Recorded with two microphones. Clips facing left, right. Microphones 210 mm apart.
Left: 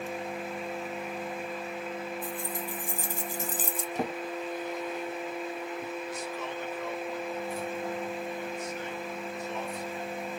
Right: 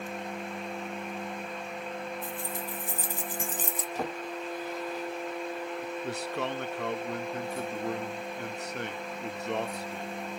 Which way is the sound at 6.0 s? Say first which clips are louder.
Right 3 dB; 80° right.